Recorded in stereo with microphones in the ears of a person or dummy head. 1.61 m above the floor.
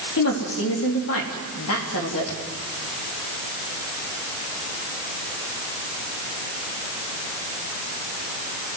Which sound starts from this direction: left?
A woman speaking, at 0.2 s.